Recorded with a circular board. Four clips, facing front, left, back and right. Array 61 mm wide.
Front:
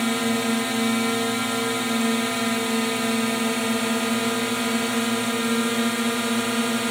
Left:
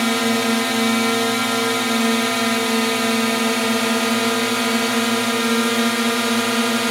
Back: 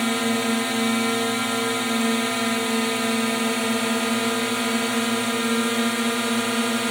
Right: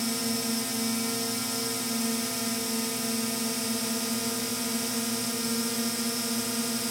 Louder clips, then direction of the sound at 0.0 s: Left 12 dB, even; 95° left.